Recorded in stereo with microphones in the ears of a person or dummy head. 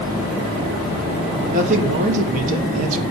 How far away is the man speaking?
About 3.5 m.